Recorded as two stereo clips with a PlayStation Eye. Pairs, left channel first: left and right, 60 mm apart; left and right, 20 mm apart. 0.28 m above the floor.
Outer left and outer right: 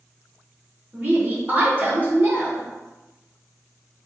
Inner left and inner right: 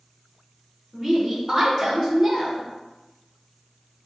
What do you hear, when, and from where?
0.9 s a woman speaking: 30° right (ahead or behind), 1.4 m